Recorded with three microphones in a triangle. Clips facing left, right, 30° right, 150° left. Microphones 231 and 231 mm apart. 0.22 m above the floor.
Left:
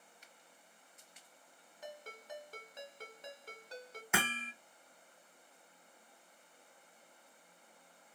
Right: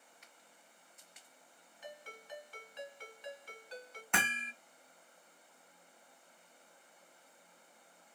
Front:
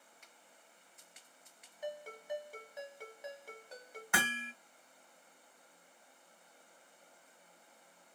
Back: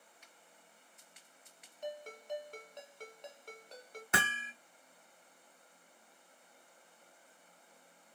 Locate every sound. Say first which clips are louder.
0.2 s a finger snap: left 1 dB, even; 55° right, 2.5 m
1.8 s a ringtone: left 2 dB, even; 55° left, 1.0 m
4.1 s hammering: left 2 dB, even; 160° left, 0.7 m